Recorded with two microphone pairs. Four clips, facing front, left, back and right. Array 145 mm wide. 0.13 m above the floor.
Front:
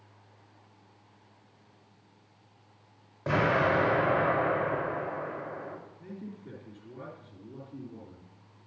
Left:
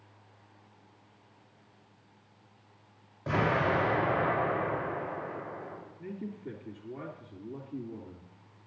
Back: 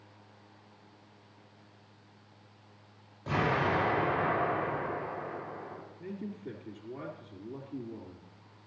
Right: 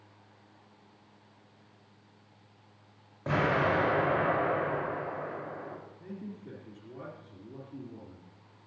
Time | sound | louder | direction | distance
3.3 | an explosion | even, front 4 dB | 30° right | 6 m
6.0 | a man speaking | left 7 dB, back 3 dB | 140° left | 3 m